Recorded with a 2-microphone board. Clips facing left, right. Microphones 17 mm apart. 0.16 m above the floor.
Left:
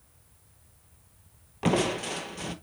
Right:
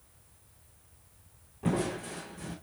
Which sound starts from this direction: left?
Crushing, at 1.6 s.